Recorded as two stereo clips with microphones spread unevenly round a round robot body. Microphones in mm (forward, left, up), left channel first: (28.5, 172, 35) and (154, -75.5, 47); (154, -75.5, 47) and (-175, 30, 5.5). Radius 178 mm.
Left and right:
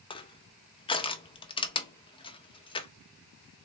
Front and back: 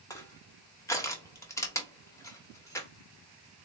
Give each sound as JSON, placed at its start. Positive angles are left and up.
{"t": 0.1, "sound": "crushing", "azimuth_deg": 70, "distance_m": 0.5}